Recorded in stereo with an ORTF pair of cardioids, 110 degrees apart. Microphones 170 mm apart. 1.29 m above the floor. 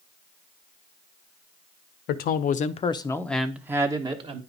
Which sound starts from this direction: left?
A man speaking, at 2.1 s.